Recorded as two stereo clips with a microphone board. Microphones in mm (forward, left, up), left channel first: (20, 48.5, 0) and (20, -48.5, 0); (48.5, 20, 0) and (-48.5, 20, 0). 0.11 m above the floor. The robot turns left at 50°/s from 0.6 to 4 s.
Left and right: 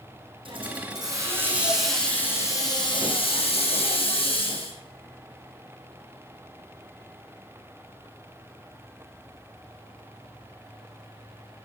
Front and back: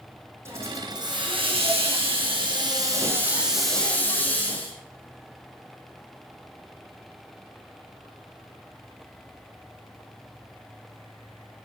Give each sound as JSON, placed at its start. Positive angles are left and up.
{"t": 0.5, "sound": "a hiss", "azimuth_deg": -120, "distance_m": 3.5}